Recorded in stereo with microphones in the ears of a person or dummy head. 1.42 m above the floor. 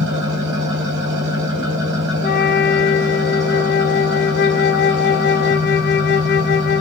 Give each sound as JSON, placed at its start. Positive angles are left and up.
{"t": 0.0, "sound": "an engine running", "side_deg": -65, "distance_m": 4.0}
{"t": 2.2, "sound": "a flute", "side_deg": 55, "distance_m": 1.6}